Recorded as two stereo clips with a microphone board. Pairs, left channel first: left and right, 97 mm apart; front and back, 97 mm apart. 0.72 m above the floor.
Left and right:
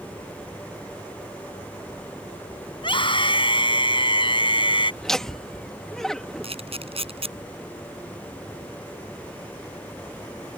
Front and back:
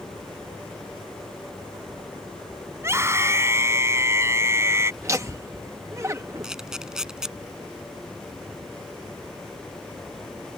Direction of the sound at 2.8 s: 120° left.